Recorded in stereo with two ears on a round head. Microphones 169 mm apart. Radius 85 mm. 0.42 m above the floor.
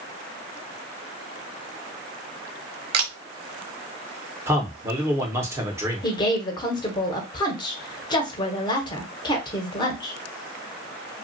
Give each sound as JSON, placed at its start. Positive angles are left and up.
{"t": 2.9, "sound": "a camera shutter", "side_deg": -55, "distance_m": 0.6}
{"t": 4.5, "sound": "a man speaking", "side_deg": -15, "distance_m": 0.8}
{"t": 6.0, "sound": "a woman speaking", "side_deg": 25, "distance_m": 0.8}